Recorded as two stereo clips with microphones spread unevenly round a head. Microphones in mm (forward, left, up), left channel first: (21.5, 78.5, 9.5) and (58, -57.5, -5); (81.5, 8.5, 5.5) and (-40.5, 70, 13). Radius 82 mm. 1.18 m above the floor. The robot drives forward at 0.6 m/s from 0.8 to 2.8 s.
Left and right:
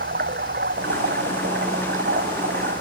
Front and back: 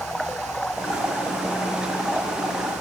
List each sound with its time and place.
0.0 s running water: 115° right; by 2.8 s 120° right